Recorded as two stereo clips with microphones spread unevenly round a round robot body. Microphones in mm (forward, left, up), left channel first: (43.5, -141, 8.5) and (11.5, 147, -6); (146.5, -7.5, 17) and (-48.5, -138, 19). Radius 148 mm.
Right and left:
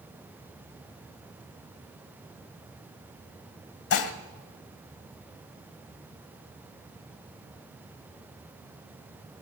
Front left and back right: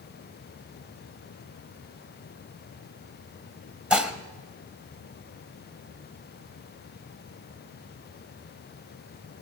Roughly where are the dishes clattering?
Ahead right.